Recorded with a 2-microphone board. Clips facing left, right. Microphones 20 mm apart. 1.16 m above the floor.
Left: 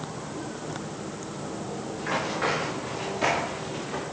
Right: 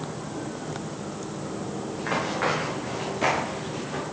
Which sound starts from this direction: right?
Running footsteps, at 1.9 s.